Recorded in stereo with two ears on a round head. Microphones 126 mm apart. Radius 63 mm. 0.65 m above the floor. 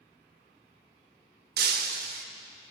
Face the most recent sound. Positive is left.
turn(degrees=-75)  # may be behind; listen again after turning